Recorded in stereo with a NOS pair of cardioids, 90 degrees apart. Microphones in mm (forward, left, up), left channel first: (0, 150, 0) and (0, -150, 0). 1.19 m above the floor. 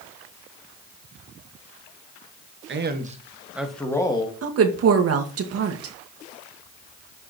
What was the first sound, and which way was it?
A man speaking, 40° right.